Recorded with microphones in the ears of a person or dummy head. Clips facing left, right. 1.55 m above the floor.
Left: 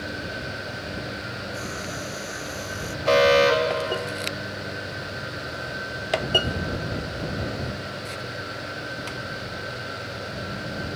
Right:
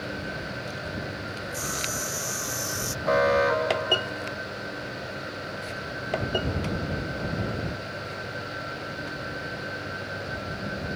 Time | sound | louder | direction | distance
1.5 | sawing | left 1 dB | 50° right (ahead or behind) | ?
3.0 | an alarm | left 5 dB | 40° left (ahead or behind) | ?